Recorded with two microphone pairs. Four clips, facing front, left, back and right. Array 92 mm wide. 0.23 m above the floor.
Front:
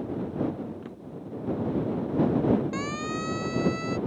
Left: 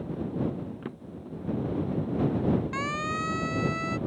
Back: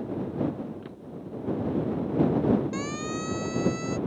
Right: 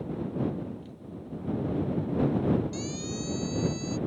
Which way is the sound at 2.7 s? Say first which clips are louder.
Left 4 dB, front 1 dB; 80° left.